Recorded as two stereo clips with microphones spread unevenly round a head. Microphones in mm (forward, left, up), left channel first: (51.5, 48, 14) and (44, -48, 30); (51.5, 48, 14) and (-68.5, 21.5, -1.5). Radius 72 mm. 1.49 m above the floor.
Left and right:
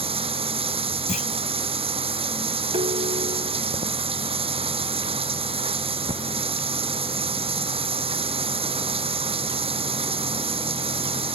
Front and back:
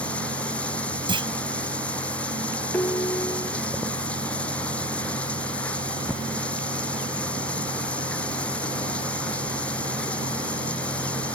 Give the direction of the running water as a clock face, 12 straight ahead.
2 o'clock.